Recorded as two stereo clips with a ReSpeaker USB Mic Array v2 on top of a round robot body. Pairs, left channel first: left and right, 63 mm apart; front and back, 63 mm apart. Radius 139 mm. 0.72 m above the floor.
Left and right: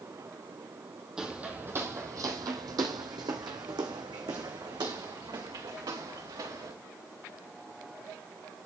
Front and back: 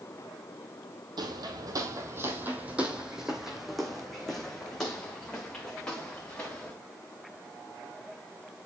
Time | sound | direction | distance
1.2 | footsteps | 170° right | 1.3 m